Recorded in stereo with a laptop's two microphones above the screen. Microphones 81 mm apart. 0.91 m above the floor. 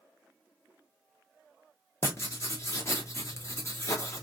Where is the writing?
35° left (ahead or behind), 1.0 m.